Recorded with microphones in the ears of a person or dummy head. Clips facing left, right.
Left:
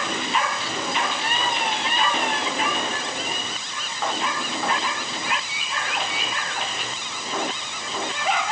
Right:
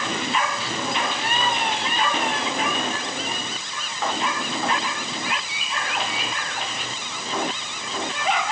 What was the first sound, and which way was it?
Only background noise.